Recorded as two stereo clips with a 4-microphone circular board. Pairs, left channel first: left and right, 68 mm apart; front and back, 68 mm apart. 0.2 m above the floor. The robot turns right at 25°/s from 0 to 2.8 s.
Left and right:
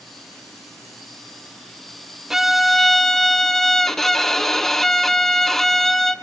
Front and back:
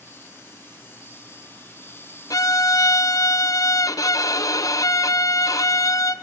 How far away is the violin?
About 0.6 m.